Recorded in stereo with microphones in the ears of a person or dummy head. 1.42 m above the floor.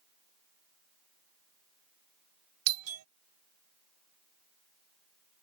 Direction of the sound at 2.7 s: 80° right.